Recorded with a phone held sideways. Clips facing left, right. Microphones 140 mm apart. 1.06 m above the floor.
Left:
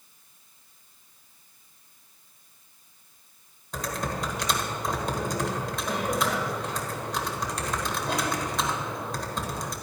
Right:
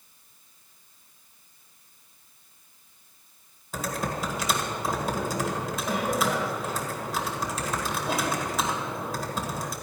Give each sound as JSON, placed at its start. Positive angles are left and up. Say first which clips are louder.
{"t": 3.7, "sound": "typing on a keyboard", "louder": "right 1 dB", "side_deg": -5, "distance_m": 1.7}